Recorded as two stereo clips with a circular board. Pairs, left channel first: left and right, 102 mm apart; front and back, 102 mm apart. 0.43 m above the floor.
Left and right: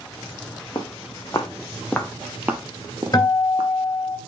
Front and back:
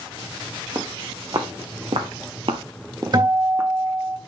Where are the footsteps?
135° left, 1.4 m; by 3.7 s 110° right, 1.3 m.